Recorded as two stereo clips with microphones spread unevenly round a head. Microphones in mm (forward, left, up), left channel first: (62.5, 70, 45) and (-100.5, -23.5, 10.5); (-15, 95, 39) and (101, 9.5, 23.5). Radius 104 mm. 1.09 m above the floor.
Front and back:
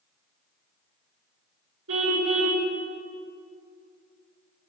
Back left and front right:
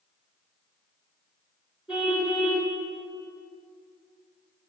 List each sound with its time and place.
1.9 s a car horn: 120° right, 6.5 m